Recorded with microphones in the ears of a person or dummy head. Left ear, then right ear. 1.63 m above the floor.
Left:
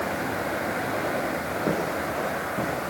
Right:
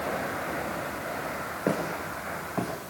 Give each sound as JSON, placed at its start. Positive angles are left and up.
{"t": 1.7, "sound": "footsteps", "side_deg": -40, "distance_m": 6.5}